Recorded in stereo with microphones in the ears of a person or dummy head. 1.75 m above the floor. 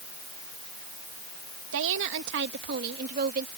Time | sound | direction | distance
1.7 | a woman speaking | 75° right (ahead or behind) | ?